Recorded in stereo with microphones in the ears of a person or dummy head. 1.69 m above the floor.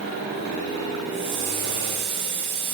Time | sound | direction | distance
1.1 | a hiss | 30° right (ahead or behind) | 8.5 m